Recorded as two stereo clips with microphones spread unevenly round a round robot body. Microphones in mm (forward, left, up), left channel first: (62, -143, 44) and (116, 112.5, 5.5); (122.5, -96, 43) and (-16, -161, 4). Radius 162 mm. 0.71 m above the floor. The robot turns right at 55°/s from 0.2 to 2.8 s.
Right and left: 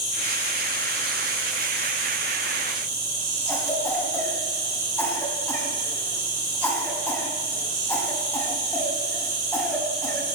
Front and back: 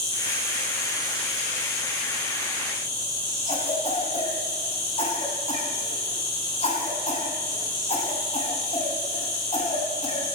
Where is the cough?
20° right, 5 m.